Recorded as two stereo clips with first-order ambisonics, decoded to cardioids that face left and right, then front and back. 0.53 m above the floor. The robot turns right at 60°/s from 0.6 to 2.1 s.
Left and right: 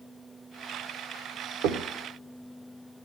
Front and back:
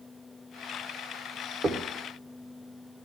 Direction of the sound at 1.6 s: 110° right.